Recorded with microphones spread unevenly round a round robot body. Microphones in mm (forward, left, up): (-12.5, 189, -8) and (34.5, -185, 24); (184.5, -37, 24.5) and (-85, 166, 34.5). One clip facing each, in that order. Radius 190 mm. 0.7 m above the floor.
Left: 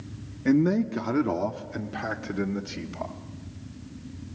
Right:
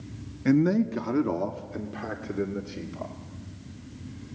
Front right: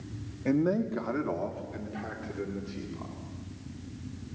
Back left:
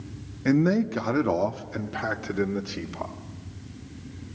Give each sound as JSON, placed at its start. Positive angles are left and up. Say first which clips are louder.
{"t": 0.5, "sound": "a man speaking", "louder": "even, back left 5 dB", "azimuth_deg": -165, "distance_m": 0.8}